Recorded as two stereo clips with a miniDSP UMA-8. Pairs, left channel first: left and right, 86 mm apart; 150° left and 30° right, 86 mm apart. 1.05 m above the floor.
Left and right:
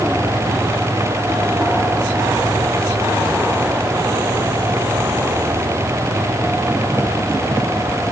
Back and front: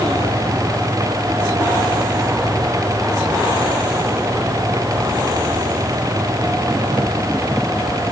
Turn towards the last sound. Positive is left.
No sound to turn to.